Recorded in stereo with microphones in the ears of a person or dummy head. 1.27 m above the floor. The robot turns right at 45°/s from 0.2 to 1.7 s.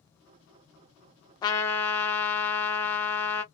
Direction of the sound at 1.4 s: 25° left (ahead or behind).